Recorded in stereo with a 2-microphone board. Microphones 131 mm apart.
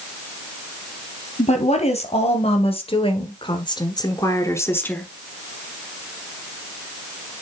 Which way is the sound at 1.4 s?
60° left (ahead or behind).